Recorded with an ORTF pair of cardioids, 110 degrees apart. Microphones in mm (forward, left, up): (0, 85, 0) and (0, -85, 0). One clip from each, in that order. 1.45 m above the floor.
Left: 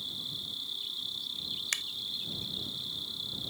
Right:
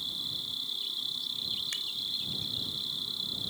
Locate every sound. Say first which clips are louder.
0.0 s an insect: right 3 dB; 20° right
1.7 s a finger snap: left 1 dB; 50° left